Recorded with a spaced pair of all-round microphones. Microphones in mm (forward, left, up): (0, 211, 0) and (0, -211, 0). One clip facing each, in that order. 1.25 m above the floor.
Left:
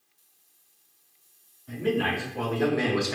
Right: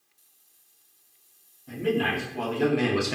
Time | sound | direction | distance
1.7 | a man speaking | 45° right (ahead or behind) | 1.5 m